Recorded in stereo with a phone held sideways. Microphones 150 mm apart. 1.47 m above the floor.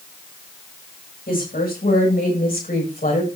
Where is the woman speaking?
85° left, 7.5 m; by 3.3 s 70° left (ahead or behind), 7 m.